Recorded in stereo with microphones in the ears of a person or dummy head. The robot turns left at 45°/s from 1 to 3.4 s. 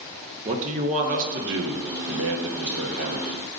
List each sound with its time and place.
0.5 s a man speaking: 40° right, 1.1 m; by 3.5 s 145° right, 1.1 m